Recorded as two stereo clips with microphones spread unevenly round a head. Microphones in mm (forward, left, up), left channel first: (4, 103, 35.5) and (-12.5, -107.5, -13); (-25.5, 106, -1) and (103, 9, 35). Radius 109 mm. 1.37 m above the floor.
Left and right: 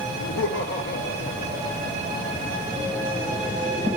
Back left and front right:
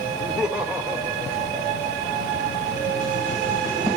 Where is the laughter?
55° left, 1.5 m; by 2.6 s 15° left, 3.5 m.